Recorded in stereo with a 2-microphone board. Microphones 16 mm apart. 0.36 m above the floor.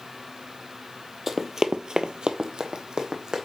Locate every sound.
1.3 s running footsteps: 10° right (ahead or behind), 0.8 m; by 3.5 s 50° right (ahead or behind), 1.6 m